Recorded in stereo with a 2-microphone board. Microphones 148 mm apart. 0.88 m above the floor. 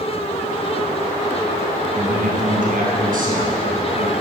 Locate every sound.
1.9 s a man speaking: 70° right (ahead or behind), 9.5 m